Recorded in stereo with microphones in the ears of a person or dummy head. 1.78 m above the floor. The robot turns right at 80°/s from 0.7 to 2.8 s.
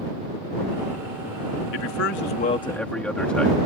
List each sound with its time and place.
1.7 s a man speaking: 85° left; by 3.6 s 175° left